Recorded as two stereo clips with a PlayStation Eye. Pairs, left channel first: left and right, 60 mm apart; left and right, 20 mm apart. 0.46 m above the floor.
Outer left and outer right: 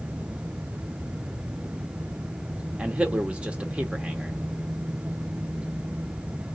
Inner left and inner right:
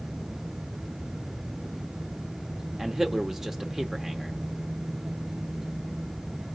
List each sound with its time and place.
2.8 s a man speaking: 20° right (ahead or behind), 0.8 m